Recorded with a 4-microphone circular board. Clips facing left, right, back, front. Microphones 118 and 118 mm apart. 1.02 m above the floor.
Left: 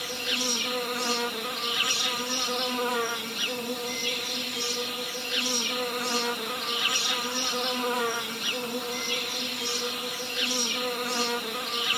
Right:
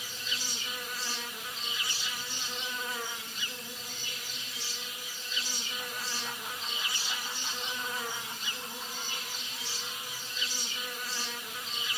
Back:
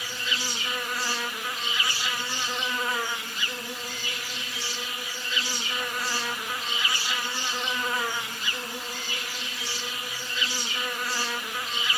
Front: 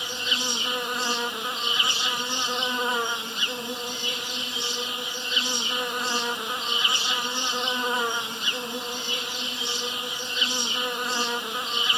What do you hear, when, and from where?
0.0 s an insect: 70° left, 0.8 m